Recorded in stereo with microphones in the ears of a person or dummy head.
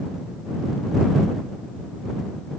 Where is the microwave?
I don't hear a microwave.